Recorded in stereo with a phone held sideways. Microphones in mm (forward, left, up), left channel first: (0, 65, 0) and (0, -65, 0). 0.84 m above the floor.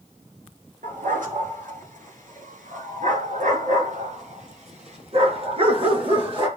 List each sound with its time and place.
0.8 s a dog barking: 85° right, 6 m; by 6.5 s 40° right (ahead or behind), 5.5 m